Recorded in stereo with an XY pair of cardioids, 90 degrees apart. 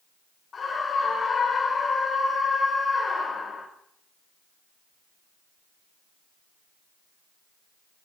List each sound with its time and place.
0.5 s a scream: 50° left, 3 m